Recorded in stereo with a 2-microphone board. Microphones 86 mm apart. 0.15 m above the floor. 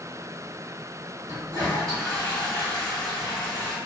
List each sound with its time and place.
1.3 s a toilet flushing: 40° right (ahead or behind), 1.3 m